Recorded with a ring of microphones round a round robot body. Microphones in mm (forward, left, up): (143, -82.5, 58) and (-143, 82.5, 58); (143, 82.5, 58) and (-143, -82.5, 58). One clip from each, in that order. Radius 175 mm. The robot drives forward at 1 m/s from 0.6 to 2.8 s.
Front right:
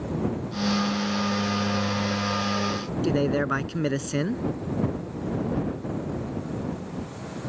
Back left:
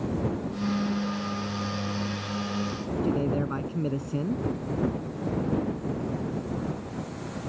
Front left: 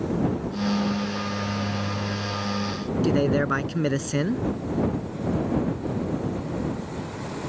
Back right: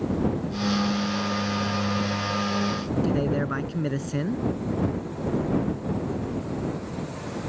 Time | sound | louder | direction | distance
3.0 | a man speaking | front right 5 dB, front left 6 dB | 35° right | ?